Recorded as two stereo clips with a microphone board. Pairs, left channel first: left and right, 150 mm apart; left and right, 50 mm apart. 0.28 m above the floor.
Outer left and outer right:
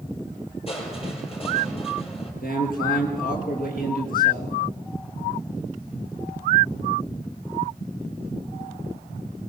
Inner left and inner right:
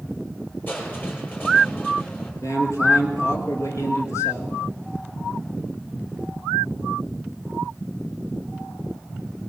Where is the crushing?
40° left (ahead or behind), 6 m.